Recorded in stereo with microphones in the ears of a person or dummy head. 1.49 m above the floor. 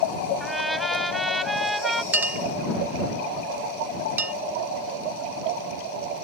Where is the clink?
10° right (ahead or behind).